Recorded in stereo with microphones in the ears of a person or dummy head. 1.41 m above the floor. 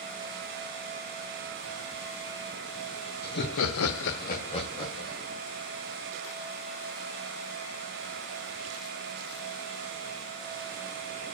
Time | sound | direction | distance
3.2 | laughter | 50° left (ahead or behind) | 1.1 m